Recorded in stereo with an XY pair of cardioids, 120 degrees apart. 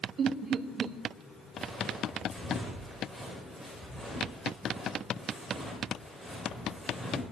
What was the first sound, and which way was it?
Laughter, 45° right.